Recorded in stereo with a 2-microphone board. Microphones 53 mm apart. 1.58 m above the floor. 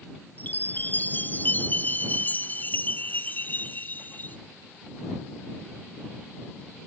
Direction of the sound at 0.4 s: 35° left (ahead or behind).